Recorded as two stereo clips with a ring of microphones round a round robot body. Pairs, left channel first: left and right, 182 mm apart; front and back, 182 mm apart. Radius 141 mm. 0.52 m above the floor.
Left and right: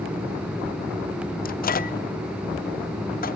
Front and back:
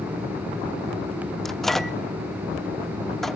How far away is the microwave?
About 0.8 m.